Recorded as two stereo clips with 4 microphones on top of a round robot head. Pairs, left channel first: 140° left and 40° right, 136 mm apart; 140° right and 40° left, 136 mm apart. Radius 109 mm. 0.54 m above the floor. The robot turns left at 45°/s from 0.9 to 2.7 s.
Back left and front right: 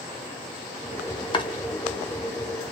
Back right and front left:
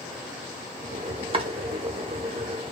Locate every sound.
1.3 s chopping: 85° left, 1.0 m; by 1.5 s 80° left, 1.0 m